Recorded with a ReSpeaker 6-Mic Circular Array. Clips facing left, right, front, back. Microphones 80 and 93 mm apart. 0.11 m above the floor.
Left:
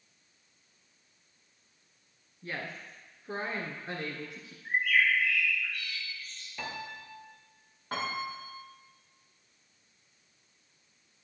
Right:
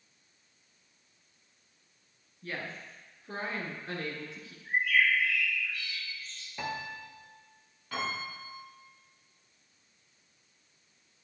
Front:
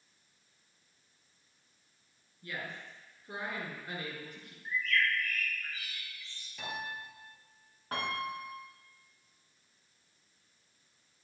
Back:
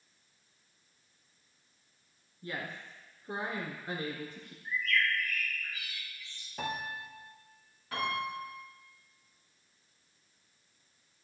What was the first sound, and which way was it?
A woman speaking, 150° left.